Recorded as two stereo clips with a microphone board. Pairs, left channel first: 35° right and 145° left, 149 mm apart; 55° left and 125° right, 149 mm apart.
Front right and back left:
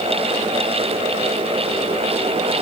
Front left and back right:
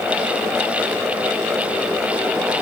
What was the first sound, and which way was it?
Only background noise.